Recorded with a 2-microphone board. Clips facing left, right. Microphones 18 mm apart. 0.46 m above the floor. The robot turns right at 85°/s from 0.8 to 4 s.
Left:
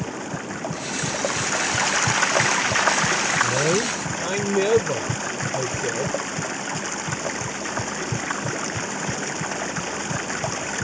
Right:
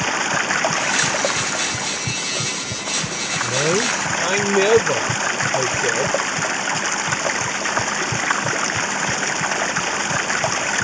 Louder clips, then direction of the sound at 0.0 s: Right 10 dB; 65° right.